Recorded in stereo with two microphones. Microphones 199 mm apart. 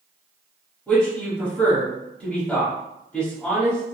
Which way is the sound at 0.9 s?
5° left (ahead or behind).